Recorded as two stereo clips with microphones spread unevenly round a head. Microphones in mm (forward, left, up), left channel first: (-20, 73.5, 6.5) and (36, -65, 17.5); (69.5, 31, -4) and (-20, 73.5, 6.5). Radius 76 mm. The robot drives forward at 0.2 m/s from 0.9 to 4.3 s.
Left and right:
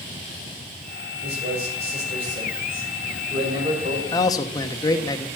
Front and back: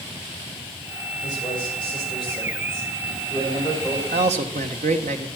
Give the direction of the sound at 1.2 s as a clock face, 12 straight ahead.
4 o'clock.